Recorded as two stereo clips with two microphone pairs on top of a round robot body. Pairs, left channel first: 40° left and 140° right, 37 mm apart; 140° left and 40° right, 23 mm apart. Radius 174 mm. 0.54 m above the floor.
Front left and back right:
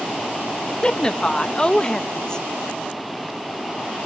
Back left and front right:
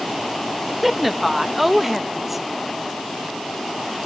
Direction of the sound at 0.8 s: 35° left.